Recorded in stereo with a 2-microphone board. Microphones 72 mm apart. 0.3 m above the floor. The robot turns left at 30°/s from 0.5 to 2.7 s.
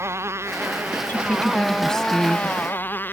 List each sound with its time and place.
0.0 s a motorcycle: 140° right; by 3.1 s 150° left
1.1 s a woman speaking: 35° left; by 2.6 s 10° right